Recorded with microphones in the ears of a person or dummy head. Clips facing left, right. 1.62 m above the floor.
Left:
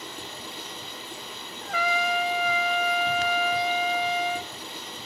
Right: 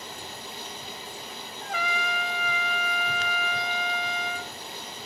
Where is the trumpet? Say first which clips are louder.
Left 5 dB; 80° left, 1.3 m.